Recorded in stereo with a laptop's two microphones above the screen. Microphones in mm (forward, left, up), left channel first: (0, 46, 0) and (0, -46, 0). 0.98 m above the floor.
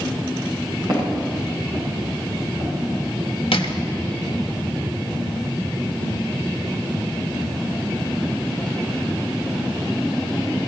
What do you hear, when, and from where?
0.9 s footsteps: 45° right (ahead or behind), 6.5 m; by 2.7 s 55° right (ahead or behind), 6.5 m
3.5 s crushing: 85° left, 1.0 m